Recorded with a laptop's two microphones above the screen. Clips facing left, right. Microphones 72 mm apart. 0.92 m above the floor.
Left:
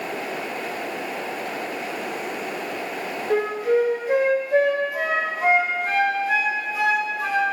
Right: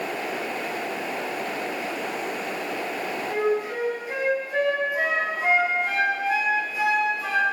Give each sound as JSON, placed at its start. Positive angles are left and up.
{"t": 3.3, "sound": "a flute", "side_deg": 80, "distance_m": 1.7}